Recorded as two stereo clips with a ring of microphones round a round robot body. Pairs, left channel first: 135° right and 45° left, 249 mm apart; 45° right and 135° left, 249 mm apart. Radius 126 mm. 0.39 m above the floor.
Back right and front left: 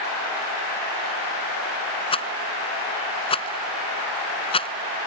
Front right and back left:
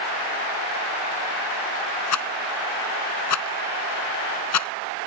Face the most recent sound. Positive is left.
turn(degrees=-65)